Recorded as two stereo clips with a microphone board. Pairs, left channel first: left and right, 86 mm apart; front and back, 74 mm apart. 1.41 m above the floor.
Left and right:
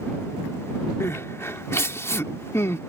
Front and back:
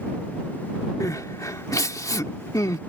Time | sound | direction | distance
1.0 | crying | 35° left | ?